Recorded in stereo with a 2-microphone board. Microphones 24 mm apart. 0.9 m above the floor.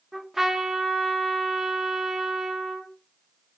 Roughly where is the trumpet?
Centre.